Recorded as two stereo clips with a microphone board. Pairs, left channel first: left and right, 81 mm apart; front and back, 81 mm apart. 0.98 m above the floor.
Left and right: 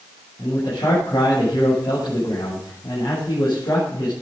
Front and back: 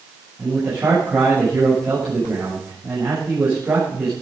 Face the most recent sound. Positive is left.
turn(degrees=110)